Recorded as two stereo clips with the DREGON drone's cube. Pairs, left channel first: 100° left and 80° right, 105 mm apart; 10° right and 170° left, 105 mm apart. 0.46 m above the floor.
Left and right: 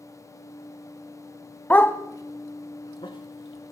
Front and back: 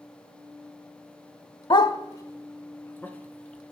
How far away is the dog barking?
About 0.6 m.